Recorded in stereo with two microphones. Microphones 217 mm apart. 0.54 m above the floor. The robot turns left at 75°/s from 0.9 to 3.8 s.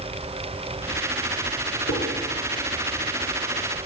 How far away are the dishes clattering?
About 4.5 m.